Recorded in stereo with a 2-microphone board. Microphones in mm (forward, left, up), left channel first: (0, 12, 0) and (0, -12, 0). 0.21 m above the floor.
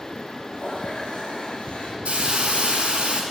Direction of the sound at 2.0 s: 55° right (ahead or behind).